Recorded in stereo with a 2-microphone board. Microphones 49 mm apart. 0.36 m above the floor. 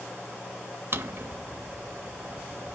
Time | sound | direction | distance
0.9 | a drawer | 50° right (ahead or behind) | 0.5 m